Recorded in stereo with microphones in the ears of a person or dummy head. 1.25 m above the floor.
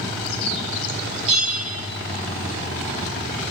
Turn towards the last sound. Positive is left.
turn(degrees=-35)  # may be behind; listen again after turning